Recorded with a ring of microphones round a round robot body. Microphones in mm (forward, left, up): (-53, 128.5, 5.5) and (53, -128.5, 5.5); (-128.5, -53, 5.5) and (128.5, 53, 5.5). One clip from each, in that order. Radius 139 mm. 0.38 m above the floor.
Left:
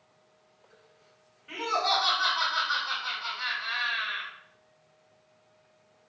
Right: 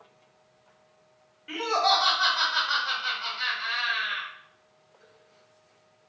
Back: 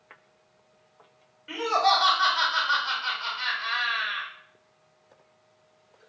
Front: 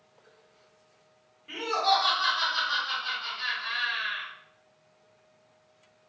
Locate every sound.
1.5 s laughter: 110° right, 1.4 m